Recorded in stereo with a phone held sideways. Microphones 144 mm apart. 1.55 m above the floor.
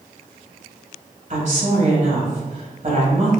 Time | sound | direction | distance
1.3 | a woman speaking | 50° right (ahead or behind) | 1.8 m